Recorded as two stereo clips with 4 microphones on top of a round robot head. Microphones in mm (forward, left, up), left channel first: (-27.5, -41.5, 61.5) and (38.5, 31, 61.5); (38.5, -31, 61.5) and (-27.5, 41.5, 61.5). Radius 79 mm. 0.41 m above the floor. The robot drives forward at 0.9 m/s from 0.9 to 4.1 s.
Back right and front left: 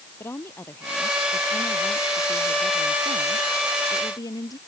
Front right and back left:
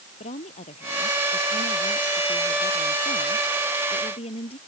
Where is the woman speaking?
65° right; by 4.6 s 75° right.